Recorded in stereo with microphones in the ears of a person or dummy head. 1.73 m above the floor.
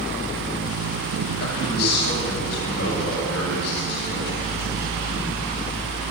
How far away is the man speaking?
About 8 m.